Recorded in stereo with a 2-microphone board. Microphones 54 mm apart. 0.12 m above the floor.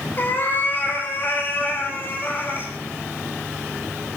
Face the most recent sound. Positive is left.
turn(degrees=40)  # may be behind; listen again after turning